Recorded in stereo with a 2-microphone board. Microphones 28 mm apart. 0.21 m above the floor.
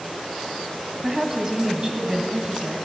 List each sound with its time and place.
1.0 s a woman speaking: 15° right (ahead or behind), 1.3 m; by 2.8 s 20° right (ahead or behind), 1.6 m